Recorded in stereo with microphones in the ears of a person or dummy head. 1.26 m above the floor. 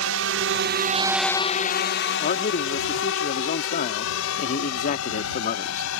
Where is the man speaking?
45° left (ahead or behind).